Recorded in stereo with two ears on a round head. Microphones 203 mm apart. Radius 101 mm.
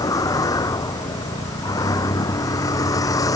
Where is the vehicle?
15° left (ahead or behind).